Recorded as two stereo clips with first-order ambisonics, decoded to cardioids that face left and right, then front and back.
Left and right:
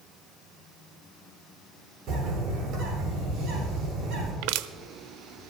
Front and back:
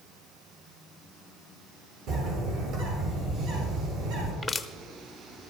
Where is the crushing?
80° right, 0.7 m.